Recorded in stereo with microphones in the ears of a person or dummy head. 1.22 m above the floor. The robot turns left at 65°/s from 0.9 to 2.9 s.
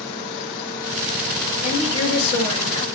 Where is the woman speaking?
100° left, 1.6 m; by 2.8 s 20° left, 1.6 m.